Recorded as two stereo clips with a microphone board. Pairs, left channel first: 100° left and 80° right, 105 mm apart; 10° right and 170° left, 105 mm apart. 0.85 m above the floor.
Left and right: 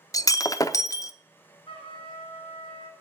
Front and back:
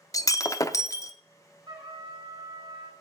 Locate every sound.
0.1 s breaking glass: 40° left, 0.6 m
1.7 s a trumpet: 130° left, 6 m